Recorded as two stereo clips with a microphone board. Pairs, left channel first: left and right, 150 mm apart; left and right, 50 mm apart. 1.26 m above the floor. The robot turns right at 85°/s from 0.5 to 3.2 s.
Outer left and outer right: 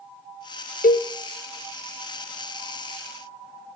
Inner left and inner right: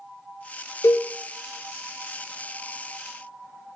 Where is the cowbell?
65° left (ahead or behind), 0.7 m.